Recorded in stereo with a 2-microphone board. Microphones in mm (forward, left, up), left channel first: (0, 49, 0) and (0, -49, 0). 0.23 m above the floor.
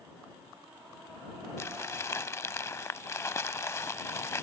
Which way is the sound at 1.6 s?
25° left (ahead or behind).